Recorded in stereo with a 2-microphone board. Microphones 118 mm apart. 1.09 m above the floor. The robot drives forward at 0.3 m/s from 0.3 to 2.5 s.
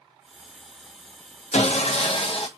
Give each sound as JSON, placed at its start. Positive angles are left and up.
{"t": 1.5, "sound": "sawing", "side_deg": 75, "distance_m": 0.5}